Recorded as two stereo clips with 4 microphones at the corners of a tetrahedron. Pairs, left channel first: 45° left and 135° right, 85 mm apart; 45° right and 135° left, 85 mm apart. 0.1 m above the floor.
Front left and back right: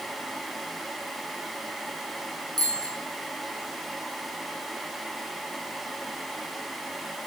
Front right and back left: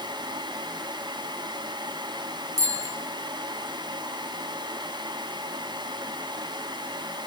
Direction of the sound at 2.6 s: 175° right.